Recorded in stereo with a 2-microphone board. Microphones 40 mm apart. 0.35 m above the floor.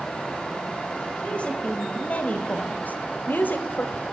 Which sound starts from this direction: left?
A woman speaking, at 1.2 s.